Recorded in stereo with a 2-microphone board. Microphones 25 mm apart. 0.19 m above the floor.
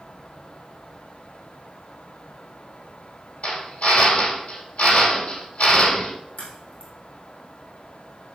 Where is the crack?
85° left, 3 m.